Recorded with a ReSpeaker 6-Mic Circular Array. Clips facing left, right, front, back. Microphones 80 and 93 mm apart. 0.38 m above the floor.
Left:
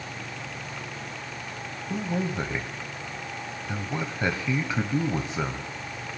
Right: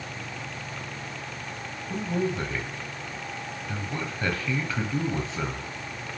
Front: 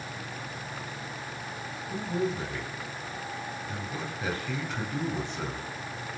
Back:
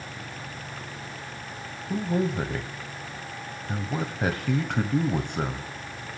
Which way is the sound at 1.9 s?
160° left.